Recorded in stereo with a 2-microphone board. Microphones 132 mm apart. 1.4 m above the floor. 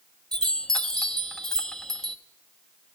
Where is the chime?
5° left (ahead or behind), 1.0 m.